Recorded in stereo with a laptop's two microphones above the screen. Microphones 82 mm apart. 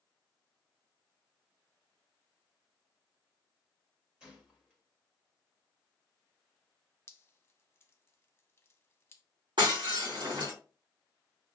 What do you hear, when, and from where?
4.2 s a gunshot: 10° right (ahead or behind), 1.0 m
7.1 s dripping: 30° left (ahead or behind), 0.7 m
9.6 s breaking glass: 70° right (ahead or behind), 2 m